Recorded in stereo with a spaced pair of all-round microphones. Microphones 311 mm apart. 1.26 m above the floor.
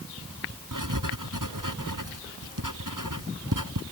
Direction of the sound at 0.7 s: 90° right.